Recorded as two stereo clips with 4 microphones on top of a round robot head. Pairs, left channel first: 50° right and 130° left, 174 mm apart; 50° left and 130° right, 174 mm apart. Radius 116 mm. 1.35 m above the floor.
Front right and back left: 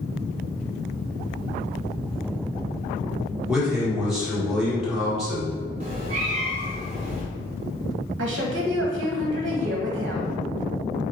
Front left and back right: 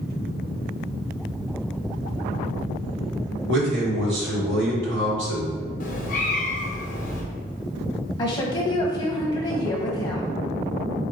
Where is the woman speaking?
120° left, 0.8 m.